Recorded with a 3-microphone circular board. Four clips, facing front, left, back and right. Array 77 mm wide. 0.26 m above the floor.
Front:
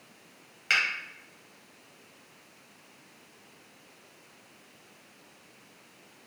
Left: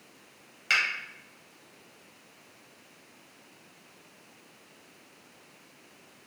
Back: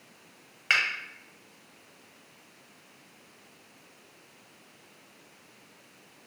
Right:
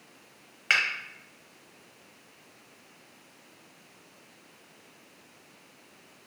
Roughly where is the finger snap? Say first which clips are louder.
Right 1 dB, back 1 dB; behind right.